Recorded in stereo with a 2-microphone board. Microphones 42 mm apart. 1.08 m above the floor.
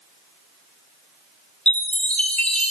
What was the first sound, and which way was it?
A chime, 30° left (ahead or behind).